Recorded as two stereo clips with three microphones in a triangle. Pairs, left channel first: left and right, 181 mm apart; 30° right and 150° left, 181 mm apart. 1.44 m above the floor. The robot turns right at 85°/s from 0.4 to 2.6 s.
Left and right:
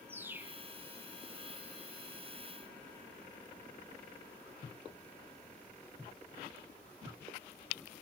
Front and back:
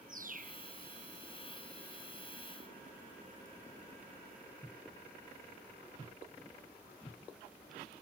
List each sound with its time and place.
0.1 s a bird: 170° right; by 0.6 s 150° right